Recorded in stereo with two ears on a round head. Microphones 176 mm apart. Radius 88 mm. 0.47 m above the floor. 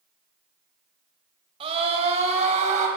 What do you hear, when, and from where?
1.6 s a scream: 30° right (ahead or behind), 2.5 m; by 2.9 s 40° right (ahead or behind), 3 m